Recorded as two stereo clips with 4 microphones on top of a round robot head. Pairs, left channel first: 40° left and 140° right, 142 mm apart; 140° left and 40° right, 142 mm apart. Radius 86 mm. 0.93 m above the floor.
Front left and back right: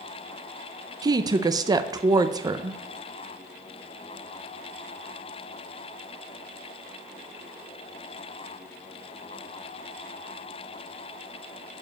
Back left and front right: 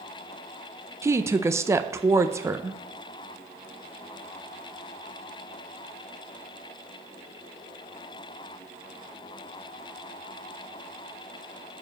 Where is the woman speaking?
95° right, 0.6 m.